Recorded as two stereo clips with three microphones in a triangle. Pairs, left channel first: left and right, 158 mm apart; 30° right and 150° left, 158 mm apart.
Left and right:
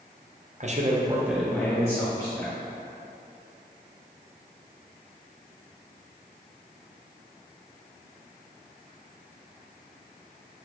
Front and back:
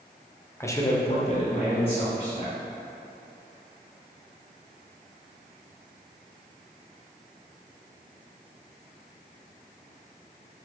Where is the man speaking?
105° right, 0.6 m; by 2.5 s 25° left, 1.3 m.